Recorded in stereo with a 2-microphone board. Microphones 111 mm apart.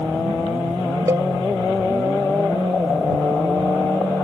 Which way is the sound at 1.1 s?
30° right (ahead or behind).